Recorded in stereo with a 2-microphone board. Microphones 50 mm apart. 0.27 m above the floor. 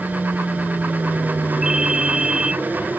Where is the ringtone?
15° right (ahead or behind).